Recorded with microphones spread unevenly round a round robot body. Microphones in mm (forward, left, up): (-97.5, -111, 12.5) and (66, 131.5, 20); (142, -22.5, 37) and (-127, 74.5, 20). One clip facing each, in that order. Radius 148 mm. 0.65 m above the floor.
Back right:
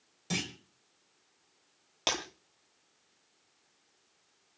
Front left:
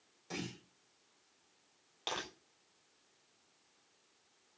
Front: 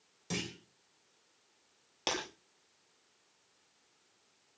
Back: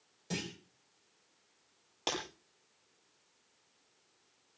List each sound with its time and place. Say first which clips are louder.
0.3 s a clunk: back right 5 dB, front 1 dB; 95° right, 4 m
2.1 s breaking glass: back right 6 dB, front 1 dB; 100° right, 7.5 m